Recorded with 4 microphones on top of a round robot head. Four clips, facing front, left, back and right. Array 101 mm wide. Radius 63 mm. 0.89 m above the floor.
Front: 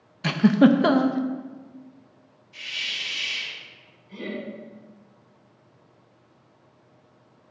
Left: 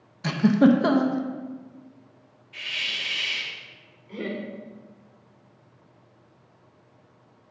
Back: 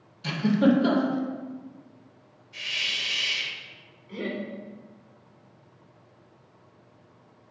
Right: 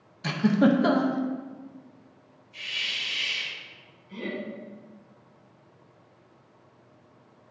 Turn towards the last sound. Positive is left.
turn(degrees=120)